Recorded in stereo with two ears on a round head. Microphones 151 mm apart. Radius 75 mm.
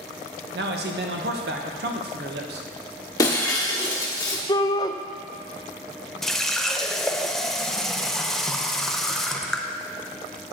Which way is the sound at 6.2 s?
5° left (ahead or behind).